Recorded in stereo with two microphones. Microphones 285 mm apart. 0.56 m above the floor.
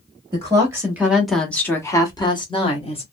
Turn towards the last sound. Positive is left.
turn(degrees=20)  # may be behind; listen again after turning